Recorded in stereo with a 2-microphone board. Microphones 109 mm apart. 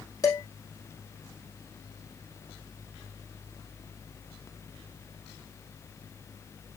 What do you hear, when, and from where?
0.2 s dishes clattering: 30° left (ahead or behind), 3 m